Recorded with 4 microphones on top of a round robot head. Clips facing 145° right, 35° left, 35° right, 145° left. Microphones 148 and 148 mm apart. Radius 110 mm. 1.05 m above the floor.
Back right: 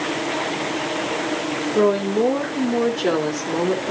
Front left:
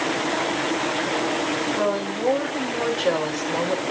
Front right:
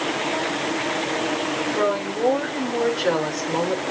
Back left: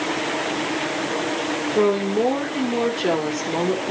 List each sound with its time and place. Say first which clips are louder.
1.8 s a woman speaking: back right 11 dB, back left 6 dB; 155° right, 3.5 m